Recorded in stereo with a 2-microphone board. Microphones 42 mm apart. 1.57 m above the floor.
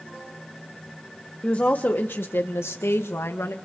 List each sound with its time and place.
1.4 s a woman speaking: 30° left (ahead or behind), 1.4 m; by 3.5 s 80° left, 2 m